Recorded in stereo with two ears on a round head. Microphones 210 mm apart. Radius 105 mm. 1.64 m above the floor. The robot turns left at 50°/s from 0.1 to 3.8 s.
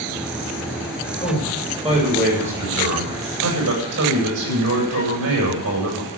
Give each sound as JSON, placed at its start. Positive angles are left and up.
{"t": 1.2, "sound": "a man speaking", "azimuth_deg": 5, "distance_m": 8.5}